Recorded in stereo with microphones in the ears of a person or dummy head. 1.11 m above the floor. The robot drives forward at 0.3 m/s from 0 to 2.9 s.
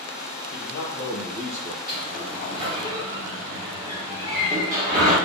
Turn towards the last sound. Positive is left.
turn(degrees=-20)  # may be behind; listen again after turning